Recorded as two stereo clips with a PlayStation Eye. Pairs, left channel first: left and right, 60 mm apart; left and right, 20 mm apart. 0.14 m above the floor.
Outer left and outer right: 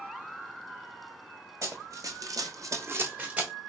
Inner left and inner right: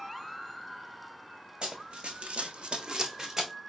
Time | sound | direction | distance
1.6 | running footsteps | 50° right (ahead or behind) | 0.8 m